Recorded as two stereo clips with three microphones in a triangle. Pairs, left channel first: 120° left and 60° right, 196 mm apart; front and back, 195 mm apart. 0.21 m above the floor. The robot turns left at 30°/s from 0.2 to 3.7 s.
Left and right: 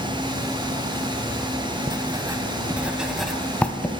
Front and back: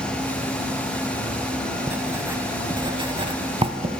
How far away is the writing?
About 0.6 m.